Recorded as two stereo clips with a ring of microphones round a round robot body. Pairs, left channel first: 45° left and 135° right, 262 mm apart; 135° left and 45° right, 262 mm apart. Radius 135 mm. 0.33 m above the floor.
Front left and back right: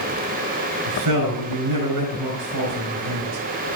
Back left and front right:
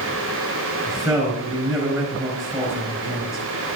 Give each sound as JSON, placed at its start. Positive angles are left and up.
{"t": 0.9, "sound": "a man speaking", "azimuth_deg": -135, "distance_m": 4.5}